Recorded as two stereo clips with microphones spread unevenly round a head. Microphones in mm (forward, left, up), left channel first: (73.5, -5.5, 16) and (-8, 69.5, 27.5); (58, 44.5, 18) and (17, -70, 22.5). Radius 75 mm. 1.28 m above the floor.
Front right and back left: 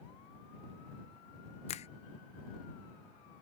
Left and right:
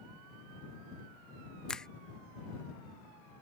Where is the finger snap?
15° right.